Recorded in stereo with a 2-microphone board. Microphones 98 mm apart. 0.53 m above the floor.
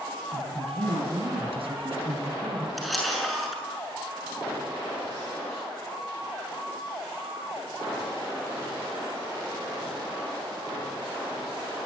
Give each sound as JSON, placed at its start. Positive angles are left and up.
{"t": 0.3, "sound": "a woman speaking", "side_deg": -80, "distance_m": 6.0}
{"t": 2.8, "sound": "a camera shutter", "side_deg": 0, "distance_m": 7.0}